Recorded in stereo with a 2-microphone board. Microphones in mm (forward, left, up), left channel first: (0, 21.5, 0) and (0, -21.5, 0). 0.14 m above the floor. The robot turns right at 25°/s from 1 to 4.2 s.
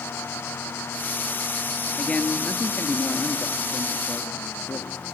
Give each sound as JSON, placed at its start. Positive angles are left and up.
{"t": 2.0, "sound": "a man speaking", "azimuth_deg": 30, "distance_m": 2.0}